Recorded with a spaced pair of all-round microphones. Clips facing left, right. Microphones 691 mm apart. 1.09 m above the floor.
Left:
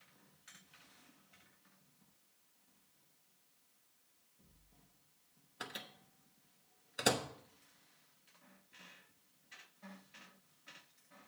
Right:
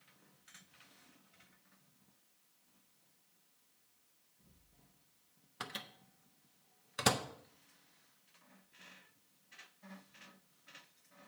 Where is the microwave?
40° right (ahead or behind), 0.6 m.